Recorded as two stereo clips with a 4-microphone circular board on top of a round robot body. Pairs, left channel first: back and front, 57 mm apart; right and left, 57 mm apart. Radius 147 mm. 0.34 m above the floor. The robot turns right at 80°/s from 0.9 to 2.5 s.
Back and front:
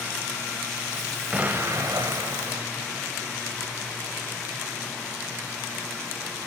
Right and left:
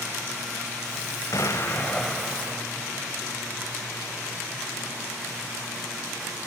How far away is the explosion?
About 1.2 m.